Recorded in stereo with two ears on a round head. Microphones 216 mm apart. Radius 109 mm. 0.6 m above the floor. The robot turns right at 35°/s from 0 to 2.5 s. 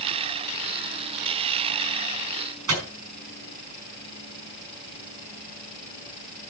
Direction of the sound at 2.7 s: 65° right (ahead or behind).